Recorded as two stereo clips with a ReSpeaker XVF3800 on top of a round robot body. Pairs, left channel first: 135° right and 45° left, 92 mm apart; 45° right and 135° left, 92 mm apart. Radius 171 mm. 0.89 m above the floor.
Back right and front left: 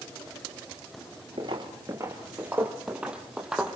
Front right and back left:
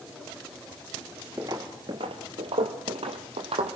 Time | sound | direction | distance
1.4 | footsteps | 75° left | 1.0 m